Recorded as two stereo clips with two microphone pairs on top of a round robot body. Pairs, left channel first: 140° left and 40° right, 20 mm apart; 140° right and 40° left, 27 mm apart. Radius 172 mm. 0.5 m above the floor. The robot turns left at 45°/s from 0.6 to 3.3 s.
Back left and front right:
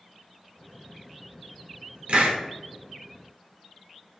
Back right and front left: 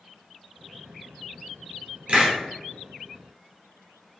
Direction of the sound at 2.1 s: Straight ahead.